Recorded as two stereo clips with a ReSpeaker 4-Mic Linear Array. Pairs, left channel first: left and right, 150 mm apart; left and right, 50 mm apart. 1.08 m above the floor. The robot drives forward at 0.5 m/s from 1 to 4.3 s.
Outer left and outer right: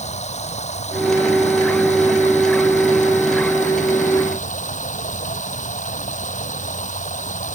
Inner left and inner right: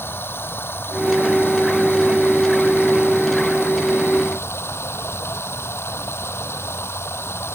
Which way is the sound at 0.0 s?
50° left (ahead or behind).